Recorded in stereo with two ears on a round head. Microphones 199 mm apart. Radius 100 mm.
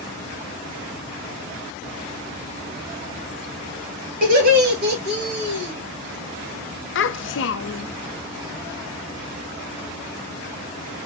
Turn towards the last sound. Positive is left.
turn(degrees=55)  # may be behind; listen again after turning